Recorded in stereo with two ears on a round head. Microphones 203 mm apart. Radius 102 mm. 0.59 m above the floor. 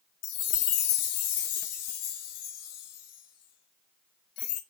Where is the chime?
70° left (ahead or behind), 0.6 m.